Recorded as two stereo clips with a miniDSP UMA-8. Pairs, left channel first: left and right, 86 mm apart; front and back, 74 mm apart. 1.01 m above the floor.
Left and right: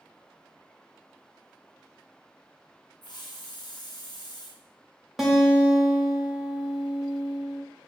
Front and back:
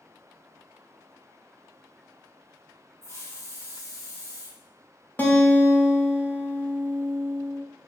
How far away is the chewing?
I don't hear chewing.